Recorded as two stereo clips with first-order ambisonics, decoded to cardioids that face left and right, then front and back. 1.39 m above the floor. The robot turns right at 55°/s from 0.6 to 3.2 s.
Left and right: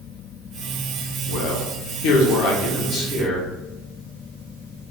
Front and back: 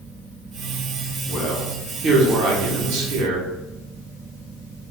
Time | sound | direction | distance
1.3 | a man speaking | 65° left | 1.0 m